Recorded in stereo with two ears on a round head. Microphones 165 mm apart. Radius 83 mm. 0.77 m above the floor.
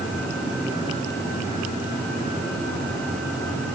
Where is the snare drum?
I don't hear a snare drum.